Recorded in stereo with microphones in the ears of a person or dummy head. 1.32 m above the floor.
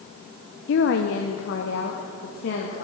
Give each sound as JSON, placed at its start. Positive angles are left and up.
{"t": 0.7, "sound": "a woman speaking", "side_deg": 60, "distance_m": 0.6}